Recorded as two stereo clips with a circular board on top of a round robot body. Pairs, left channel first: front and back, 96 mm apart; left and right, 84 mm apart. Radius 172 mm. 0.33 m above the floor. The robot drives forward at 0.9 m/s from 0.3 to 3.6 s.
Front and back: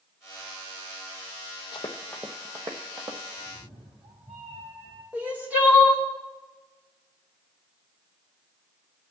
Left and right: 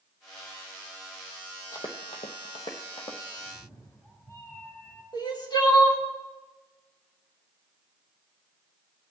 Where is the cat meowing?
150° left, 2.5 m; by 5.0 s 155° left, 3 m.